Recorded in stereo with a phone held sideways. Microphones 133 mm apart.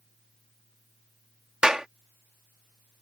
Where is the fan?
80° left.